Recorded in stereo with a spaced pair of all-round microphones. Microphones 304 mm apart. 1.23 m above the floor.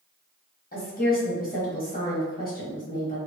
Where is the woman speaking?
30° left (ahead or behind), 0.9 m.